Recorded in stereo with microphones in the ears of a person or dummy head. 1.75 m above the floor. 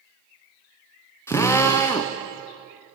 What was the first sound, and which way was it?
A drill, 10° left (ahead or behind).